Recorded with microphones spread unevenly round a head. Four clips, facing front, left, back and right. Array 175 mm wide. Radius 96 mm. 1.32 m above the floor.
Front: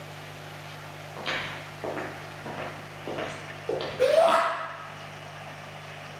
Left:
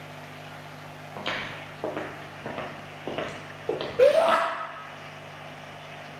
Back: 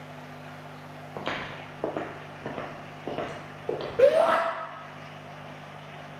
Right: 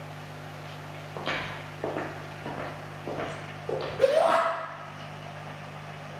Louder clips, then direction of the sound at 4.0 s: Left 3 dB, back 1 dB; 165° left.